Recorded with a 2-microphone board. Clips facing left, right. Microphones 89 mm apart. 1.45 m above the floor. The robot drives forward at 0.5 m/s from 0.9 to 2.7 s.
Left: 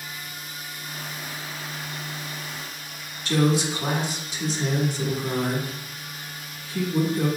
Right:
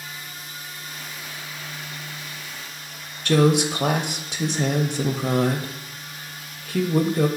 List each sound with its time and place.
3.2 s a woman speaking: 75° right (ahead or behind), 0.5 m